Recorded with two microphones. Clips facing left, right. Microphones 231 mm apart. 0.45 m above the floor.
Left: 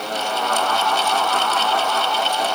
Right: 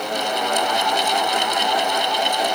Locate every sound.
Only background noise.